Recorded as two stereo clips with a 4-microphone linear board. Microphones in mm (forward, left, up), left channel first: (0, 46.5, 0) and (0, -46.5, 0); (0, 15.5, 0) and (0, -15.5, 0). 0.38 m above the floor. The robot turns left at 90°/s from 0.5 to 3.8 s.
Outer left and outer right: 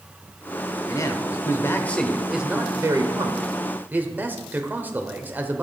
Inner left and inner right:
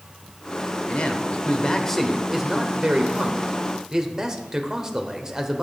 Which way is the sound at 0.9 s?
120° left.